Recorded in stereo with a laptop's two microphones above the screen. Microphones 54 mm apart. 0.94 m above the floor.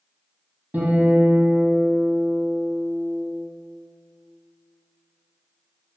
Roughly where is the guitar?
Right.